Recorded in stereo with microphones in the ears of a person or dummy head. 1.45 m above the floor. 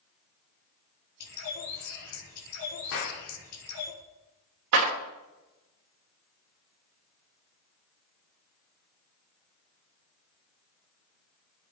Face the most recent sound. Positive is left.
turn(degrees=-80)